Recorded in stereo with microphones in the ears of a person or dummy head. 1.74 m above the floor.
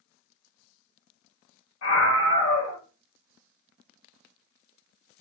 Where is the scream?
90° left, 1.8 m.